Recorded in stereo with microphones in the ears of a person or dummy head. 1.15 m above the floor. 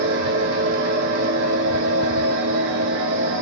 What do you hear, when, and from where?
0.0 s a machine running: 65° right (ahead or behind), 1.2 m